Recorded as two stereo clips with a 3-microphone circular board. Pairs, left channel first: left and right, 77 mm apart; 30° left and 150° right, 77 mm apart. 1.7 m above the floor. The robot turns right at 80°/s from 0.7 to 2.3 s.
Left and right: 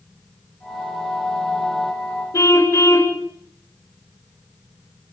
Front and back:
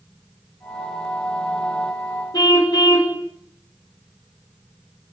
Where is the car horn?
50° left, 3 m.